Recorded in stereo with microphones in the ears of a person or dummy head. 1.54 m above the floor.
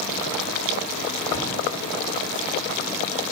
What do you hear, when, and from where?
1.3 s a cupboard door: 75° right (ahead or behind), 2.5 m